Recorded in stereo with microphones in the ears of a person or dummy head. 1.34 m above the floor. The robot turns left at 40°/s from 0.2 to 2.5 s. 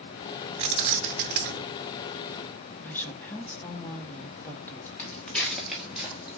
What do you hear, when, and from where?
0.6 s keys jangling: 45° right, 0.5 m; by 1.7 s 85° right, 0.5 m
2.8 s a woman speaking: 10° left (ahead or behind), 1.2 m
5.0 s footsteps: 15° left (ahead or behind), 1.4 m; by 6.4 s 10° right (ahead or behind), 2 m